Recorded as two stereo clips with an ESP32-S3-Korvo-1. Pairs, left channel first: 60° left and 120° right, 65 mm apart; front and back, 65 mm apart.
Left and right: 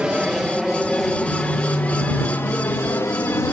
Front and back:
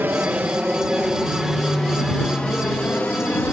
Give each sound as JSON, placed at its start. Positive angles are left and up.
{"t": 0.0, "sound": "an aircraft", "azimuth_deg": 180}